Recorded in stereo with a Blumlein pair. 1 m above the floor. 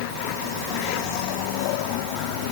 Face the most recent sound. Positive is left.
No sound to turn to.